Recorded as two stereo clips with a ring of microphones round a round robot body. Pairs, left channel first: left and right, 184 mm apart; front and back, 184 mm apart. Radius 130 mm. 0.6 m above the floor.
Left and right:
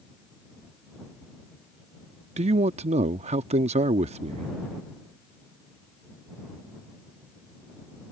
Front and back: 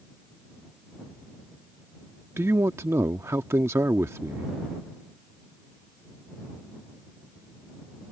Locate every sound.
2.4 s a man speaking: 110° right